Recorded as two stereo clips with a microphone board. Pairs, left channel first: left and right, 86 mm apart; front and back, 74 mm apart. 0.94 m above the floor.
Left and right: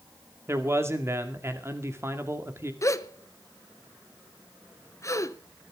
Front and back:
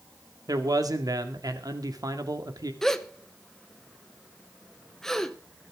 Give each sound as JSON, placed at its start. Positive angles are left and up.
{"t": 0.5, "sound": "a man speaking", "azimuth_deg": -150, "distance_m": 2.0}
{"t": 2.8, "sound": "a gasp", "azimuth_deg": 80, "distance_m": 0.9}